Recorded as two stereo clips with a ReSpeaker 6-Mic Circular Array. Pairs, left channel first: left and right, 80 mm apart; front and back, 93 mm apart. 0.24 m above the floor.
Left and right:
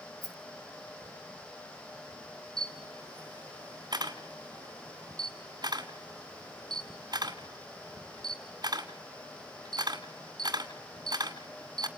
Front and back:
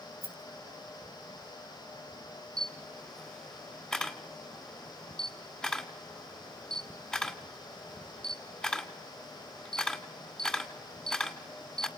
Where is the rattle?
175° left, 4 m.